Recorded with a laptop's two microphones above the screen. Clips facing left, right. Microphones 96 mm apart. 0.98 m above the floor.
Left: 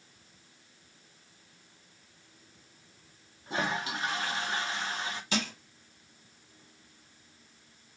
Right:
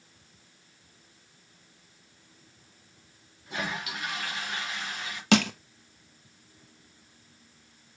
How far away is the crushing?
About 0.7 m.